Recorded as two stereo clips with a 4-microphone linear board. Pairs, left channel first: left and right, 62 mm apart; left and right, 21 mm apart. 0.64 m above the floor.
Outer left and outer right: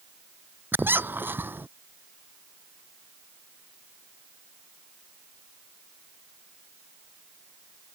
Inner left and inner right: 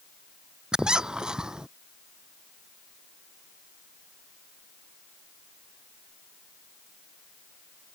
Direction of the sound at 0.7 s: 35° right (ahead or behind).